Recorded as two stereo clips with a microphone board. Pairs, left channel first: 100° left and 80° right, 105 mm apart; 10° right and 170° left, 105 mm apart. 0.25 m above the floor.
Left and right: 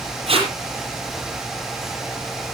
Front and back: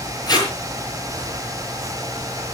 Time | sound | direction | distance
0.3 | tape being pulled | 60° right | 6.5 m